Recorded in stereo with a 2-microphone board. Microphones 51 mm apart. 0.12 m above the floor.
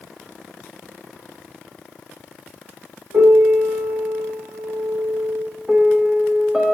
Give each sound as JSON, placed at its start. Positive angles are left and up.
{"t": 3.1, "sound": "a piano", "side_deg": -55, "distance_m": 6.0}
{"t": 5.7, "sound": "a piano", "side_deg": 0, "distance_m": 1.1}